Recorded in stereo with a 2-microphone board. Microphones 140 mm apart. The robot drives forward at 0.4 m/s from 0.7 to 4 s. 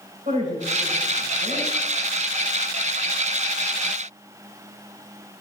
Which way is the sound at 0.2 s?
70° right (ahead or behind).